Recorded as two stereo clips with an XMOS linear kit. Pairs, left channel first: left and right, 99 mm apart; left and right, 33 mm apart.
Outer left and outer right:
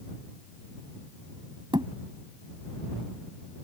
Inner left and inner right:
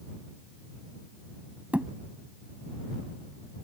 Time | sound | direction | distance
1.7 | a thud | 55° right (ahead or behind) | ?